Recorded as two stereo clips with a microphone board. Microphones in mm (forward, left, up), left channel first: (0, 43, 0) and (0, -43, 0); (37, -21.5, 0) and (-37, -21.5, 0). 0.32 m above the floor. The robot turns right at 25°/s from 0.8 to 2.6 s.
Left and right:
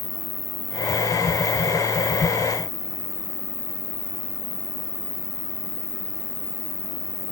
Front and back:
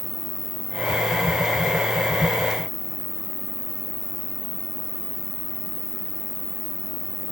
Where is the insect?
160° left; by 7.3 s 155° right.